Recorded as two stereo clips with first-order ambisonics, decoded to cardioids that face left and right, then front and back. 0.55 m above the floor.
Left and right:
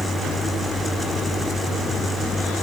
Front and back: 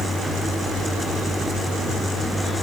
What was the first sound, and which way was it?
Only background noise.